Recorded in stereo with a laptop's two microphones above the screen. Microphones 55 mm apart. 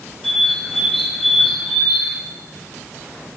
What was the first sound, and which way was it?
A bird, centre (ahead or behind).